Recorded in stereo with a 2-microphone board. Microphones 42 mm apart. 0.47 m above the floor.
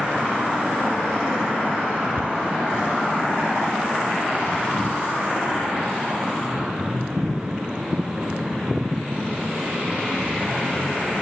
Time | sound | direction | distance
2.2 | a cupboard door | 60° right (ahead or behind) | ?